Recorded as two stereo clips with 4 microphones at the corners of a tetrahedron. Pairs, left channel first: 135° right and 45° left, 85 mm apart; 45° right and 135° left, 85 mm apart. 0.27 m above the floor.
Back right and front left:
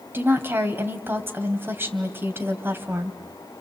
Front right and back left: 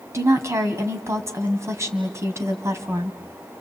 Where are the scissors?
I don't hear scissors.